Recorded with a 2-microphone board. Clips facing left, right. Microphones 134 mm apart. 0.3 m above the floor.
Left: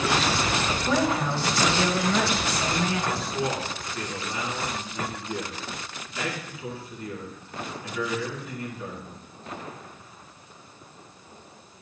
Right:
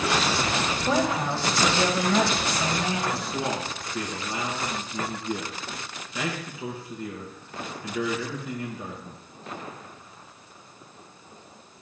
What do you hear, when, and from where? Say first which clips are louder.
0.9 s a woman speaking: even; 25° right (ahead or behind), 1.3 m
3.1 s a man speaking: left 1 dB; 70° right (ahead or behind), 2.5 m